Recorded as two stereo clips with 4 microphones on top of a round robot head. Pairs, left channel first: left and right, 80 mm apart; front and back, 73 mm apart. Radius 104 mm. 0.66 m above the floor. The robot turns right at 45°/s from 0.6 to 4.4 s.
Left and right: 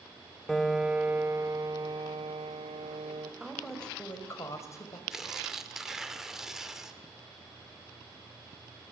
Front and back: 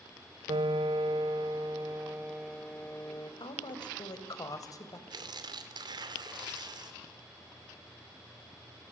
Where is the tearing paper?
175° right, 2.5 m.